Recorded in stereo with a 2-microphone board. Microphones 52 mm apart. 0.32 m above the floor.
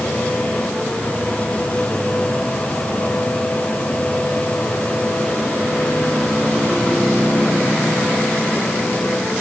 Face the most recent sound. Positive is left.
No sound to turn to.